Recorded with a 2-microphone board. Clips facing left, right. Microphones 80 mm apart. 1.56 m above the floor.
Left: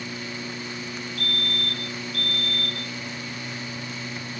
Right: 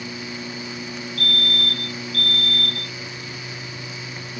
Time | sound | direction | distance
1.2 | a fire alarm | 5° left (ahead or behind) | ?